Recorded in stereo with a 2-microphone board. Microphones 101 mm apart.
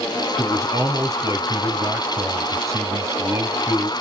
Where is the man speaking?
30° right (ahead or behind), 1.5 m.